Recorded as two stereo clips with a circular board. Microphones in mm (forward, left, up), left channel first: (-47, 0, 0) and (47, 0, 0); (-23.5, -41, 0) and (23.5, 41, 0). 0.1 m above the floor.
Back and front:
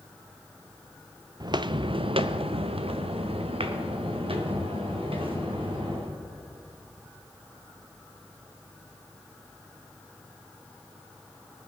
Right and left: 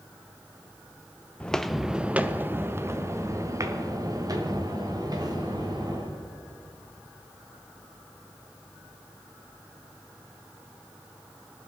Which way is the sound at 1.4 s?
45° right.